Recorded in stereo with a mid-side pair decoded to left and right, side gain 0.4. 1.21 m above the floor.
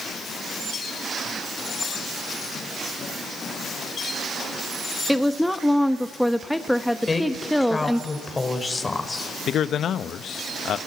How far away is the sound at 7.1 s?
About 4.5 m.